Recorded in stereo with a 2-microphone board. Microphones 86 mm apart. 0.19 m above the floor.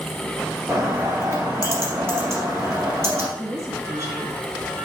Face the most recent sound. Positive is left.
turn(degrees=-35)  # may be behind; listen again after turning